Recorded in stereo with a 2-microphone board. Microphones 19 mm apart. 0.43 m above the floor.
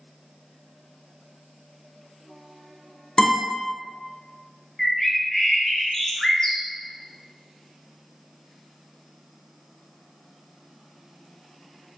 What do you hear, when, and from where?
3.2 s a guitar: 45° left (ahead or behind), 1.1 m
4.8 s a bird: 25° left (ahead or behind), 0.5 m